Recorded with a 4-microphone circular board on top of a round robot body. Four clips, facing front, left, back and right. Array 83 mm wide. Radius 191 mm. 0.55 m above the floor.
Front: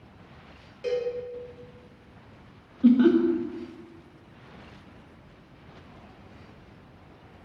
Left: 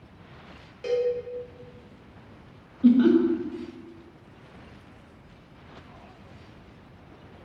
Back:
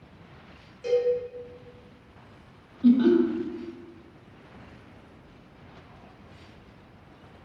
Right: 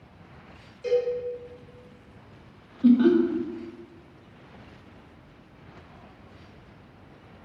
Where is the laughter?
15° left, 0.7 m.